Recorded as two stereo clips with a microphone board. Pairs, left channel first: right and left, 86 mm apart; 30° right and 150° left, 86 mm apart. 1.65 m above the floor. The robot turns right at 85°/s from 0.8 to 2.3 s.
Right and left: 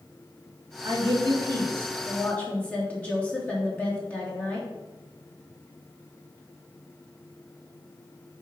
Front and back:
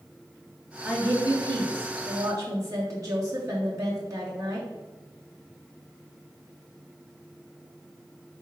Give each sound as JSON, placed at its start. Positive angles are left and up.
{"t": 0.8, "sound": "a woman speaking", "azimuth_deg": 75, "distance_m": 3.0}